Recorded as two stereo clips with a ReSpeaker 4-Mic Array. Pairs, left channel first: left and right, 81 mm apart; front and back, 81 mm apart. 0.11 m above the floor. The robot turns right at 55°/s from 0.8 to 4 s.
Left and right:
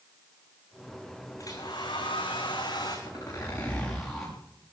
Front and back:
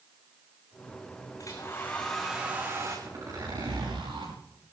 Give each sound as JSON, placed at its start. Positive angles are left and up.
{"t": 1.4, "sound": "a hair dryer", "azimuth_deg": 40, "distance_m": 3.0}
{"t": 3.1, "sound": "a zipper", "azimuth_deg": 125, "distance_m": 7.0}